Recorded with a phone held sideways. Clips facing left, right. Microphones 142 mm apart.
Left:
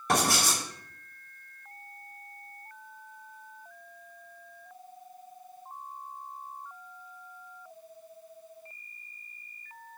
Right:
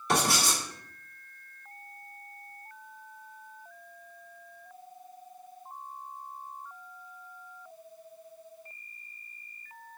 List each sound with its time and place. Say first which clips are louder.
0.1 s writing: left 1 dB; 50° left (ahead or behind), 1.8 m